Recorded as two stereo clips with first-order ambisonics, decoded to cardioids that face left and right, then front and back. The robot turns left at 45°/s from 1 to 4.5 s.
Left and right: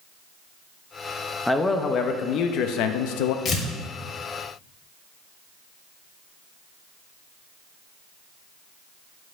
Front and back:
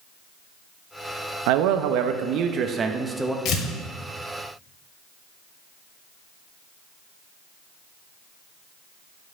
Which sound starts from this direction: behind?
A man speaking, at 1.5 s.